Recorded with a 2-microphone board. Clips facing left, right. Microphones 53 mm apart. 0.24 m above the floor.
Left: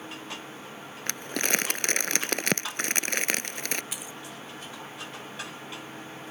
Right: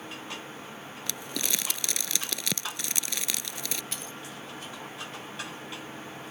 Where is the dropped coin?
5° left (ahead or behind).